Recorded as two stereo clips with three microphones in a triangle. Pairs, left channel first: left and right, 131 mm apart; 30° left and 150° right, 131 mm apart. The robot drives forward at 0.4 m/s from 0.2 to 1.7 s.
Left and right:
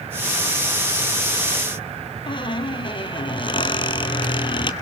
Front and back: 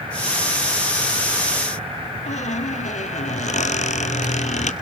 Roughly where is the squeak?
Ahead left.